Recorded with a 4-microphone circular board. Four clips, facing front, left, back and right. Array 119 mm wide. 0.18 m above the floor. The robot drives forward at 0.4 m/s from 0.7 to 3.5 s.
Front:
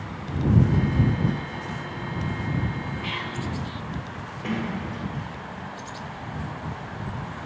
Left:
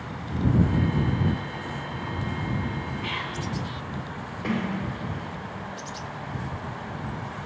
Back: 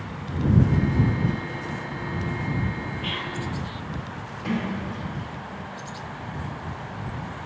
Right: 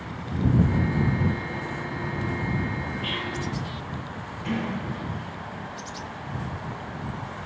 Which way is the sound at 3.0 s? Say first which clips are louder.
Right 1 dB, even; 45° left.